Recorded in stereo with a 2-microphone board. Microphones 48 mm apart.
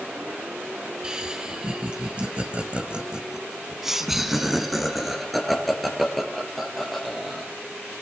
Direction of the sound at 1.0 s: 20° right (ahead or behind).